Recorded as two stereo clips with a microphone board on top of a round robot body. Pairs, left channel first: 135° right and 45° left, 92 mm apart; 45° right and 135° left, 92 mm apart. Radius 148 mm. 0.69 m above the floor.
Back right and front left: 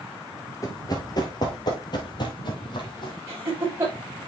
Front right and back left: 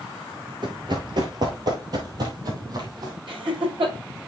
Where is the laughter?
105° left, 5 m.